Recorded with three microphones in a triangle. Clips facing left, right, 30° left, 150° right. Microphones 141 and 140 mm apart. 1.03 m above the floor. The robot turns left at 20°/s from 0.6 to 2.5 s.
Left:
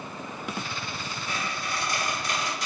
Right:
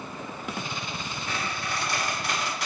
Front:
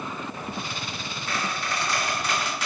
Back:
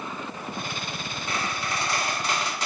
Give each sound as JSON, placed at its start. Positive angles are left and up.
{"t": 1.3, "sound": "a squeak", "azimuth_deg": -75, "distance_m": 1.7}